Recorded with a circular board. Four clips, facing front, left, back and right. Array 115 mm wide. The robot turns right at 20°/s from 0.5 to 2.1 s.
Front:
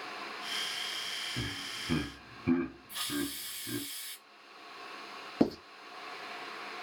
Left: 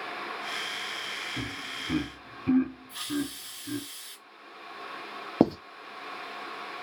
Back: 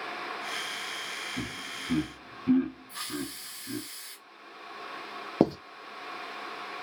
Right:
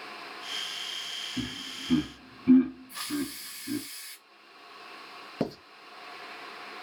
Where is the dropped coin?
No dropped coin in this recording.